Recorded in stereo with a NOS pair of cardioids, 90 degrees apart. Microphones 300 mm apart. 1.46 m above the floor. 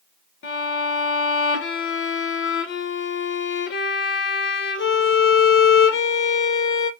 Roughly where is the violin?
Ahead left.